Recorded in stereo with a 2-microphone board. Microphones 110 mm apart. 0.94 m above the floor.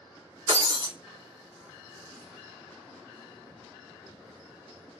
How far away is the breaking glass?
About 1.5 m.